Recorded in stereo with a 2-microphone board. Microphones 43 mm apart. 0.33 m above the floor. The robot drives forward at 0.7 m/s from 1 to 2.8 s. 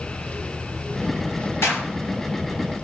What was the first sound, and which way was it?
A clap, 75° left (ahead or behind).